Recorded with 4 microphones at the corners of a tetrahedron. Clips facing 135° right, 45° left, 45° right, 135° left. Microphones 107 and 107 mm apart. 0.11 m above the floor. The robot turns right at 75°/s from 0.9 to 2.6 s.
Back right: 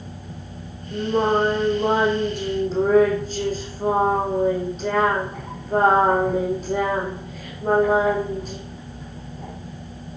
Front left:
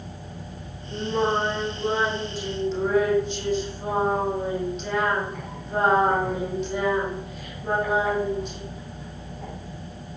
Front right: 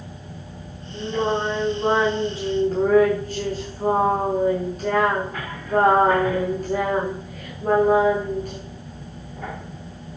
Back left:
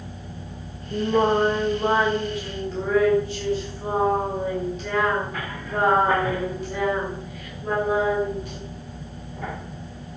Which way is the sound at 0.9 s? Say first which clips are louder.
Back right 4 dB, back left 3 dB; 145° left.